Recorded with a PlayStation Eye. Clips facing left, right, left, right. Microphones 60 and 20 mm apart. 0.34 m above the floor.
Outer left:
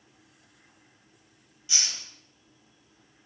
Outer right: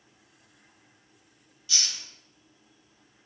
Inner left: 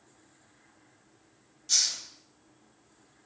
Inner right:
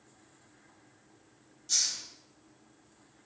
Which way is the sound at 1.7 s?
20° left (ahead or behind).